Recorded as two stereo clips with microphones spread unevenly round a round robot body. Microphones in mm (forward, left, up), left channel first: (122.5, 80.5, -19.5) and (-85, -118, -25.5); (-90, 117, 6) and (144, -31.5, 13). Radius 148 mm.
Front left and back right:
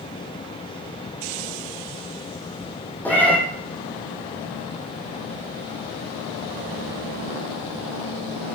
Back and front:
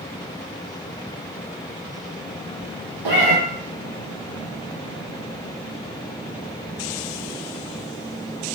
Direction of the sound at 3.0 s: 40° right.